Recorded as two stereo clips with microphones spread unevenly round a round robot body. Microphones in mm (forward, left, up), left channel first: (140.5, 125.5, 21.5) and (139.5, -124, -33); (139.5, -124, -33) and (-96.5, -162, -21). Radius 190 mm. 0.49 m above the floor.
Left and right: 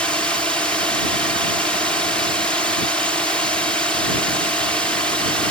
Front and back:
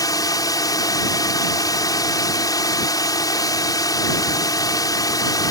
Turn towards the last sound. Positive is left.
turn(degrees=-25)